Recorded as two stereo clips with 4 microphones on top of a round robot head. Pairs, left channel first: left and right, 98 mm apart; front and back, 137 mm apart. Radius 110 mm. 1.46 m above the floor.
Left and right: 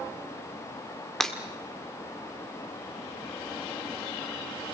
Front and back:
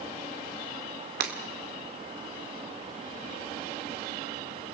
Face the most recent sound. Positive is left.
turn(degrees=175)